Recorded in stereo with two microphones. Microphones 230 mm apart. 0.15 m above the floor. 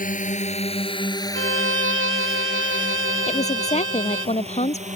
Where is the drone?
35° left (ahead or behind); by 5.0 s 30° right (ahead or behind).